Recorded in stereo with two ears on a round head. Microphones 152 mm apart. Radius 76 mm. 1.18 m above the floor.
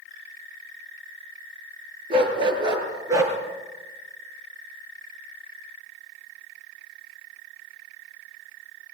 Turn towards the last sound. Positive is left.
turn(degrees=-15)  # may be behind; listen again after turning